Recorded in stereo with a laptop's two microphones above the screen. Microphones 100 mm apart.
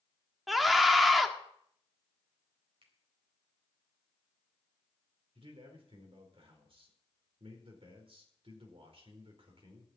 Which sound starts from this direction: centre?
A scream, at 0.5 s.